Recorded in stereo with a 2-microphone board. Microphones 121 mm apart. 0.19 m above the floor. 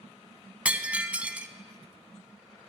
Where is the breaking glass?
10° right (ahead or behind), 0.6 m.